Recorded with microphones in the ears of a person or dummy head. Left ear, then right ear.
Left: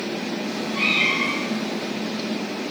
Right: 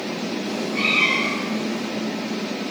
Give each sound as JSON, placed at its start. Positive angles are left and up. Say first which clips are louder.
{"t": 0.4, "sound": "a cat meowing", "louder": "even", "side_deg": -5, "distance_m": 3.0}